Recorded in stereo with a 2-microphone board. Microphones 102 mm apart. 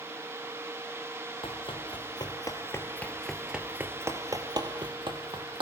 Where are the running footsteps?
60° left (ahead or behind), 3 m; by 5.6 s 55° right (ahead or behind), 3.5 m.